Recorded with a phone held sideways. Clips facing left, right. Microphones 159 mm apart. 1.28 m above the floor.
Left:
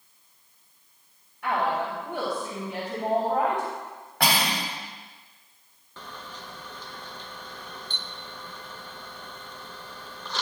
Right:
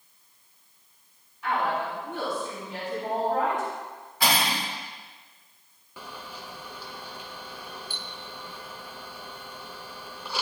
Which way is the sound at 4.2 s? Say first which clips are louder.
Even; 80° left.